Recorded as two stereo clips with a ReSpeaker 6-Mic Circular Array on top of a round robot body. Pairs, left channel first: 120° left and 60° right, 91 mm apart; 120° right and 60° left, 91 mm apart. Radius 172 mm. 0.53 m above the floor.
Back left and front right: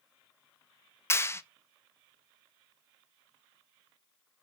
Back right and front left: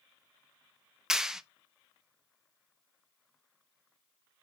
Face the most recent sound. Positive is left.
turn(degrees=140)